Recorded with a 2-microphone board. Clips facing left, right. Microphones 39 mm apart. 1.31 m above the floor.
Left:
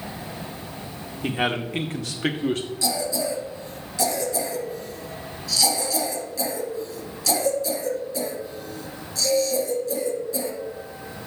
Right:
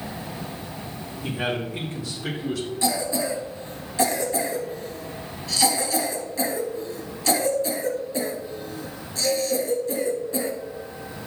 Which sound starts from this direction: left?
A man speaking, at 1.2 s.